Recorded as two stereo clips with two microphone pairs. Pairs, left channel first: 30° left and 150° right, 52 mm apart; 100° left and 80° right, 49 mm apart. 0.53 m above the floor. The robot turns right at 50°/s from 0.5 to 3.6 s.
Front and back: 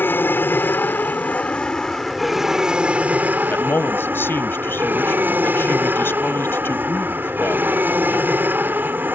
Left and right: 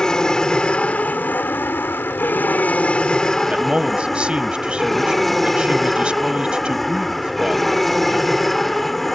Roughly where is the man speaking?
Ahead.